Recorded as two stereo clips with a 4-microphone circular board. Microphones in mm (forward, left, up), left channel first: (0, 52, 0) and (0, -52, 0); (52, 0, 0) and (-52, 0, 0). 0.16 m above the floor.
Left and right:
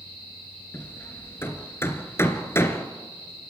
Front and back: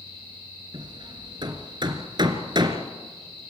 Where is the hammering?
150° left, 1.9 m.